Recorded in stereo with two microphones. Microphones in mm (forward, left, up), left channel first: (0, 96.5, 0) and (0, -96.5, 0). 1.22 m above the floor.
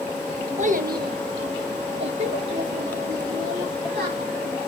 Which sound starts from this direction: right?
A child speaking, at 0.6 s.